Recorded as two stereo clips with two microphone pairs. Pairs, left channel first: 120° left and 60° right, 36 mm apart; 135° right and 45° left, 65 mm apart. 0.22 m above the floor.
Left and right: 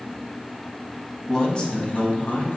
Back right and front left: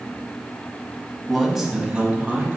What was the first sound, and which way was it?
A man speaking, 155° left.